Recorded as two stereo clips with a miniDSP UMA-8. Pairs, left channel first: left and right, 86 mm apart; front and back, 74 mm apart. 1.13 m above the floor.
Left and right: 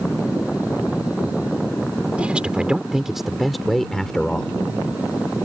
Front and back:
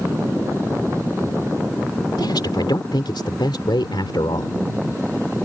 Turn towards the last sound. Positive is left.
turn(degrees=10)